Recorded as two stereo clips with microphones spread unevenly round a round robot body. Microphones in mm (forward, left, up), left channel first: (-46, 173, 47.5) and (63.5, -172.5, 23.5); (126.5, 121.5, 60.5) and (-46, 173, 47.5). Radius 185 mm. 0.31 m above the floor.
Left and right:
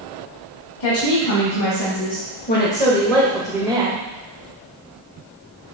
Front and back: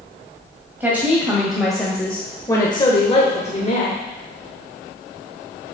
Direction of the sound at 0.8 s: 85° left.